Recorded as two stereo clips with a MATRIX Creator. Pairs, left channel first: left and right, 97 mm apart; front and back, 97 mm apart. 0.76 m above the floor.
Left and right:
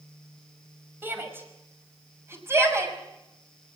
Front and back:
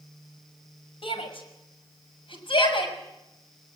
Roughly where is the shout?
Ahead.